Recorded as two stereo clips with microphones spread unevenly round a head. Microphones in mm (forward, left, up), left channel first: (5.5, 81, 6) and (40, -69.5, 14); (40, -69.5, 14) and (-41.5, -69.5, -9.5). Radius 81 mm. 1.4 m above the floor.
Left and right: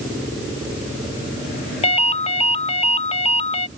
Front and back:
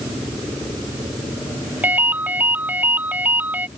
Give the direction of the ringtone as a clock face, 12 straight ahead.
9 o'clock.